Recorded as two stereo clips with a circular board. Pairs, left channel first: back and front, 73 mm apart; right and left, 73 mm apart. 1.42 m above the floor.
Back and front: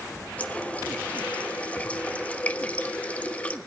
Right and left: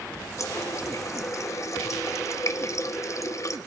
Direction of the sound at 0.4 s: 115° right.